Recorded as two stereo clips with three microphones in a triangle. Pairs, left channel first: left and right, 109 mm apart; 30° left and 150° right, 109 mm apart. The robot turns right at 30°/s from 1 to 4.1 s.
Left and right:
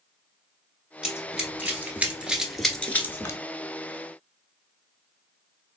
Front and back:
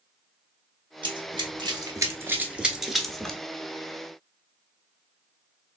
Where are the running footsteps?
170° right, 1.3 m; by 3.4 s 110° left, 0.9 m.